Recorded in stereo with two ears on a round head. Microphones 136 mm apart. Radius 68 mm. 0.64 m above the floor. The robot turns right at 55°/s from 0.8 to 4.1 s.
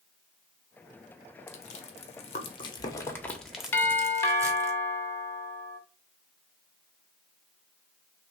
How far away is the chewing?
About 1.3 m.